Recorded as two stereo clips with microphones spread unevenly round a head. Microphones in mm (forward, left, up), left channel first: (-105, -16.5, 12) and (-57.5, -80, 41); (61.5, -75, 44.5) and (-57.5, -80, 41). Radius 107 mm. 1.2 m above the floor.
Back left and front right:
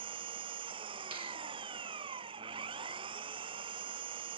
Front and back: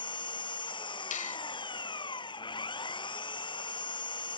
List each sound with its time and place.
0.0 s an engine running: 45° right
1.1 s a finger snap: 10° left